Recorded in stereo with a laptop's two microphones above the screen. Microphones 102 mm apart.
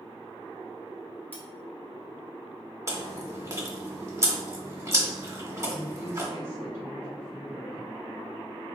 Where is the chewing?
30° right (ahead or behind), 0.9 m.